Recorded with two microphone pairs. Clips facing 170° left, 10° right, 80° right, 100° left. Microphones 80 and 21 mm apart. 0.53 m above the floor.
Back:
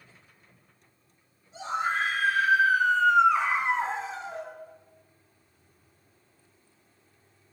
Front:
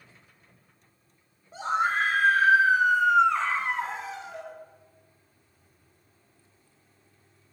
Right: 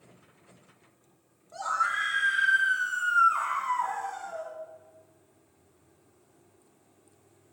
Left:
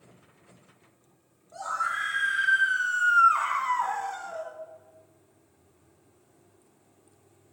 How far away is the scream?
About 1.5 m.